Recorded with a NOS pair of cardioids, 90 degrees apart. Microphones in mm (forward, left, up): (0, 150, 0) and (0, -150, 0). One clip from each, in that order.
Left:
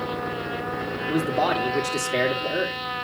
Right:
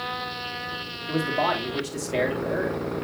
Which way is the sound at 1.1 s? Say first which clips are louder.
Left 1 dB; 25° left.